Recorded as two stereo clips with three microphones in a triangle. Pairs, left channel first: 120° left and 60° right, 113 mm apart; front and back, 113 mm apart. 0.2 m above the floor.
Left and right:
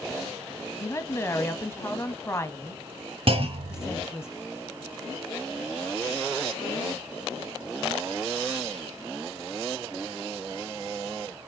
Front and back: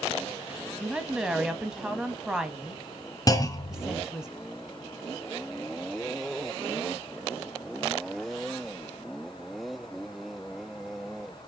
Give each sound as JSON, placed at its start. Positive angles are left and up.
{"t": 0.8, "sound": "a woman speaking", "azimuth_deg": 105, "distance_m": 1.1}
{"t": 3.3, "sound": "a clunk", "azimuth_deg": -50, "distance_m": 1.1}